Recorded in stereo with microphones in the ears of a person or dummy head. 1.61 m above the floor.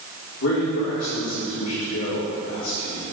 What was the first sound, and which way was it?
A man speaking, 75° left (ahead or behind).